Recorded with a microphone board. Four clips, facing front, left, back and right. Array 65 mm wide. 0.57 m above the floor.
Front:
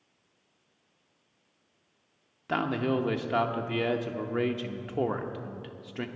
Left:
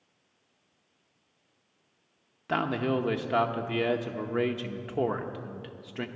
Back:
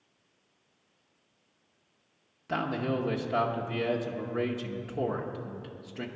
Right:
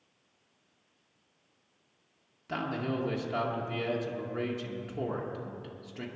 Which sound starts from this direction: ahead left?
A man speaking, at 2.5 s.